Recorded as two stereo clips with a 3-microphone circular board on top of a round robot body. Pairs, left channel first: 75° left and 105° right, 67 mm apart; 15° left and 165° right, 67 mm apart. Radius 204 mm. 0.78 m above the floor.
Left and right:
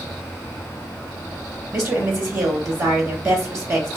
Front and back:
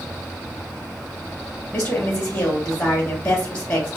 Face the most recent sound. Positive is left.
turn(degrees=-55)